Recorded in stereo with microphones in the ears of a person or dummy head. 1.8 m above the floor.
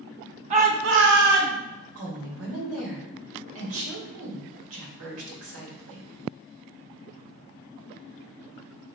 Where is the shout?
30° right (ahead or behind), 0.7 m; by 1.6 s 50° right (ahead or behind), 1.1 m.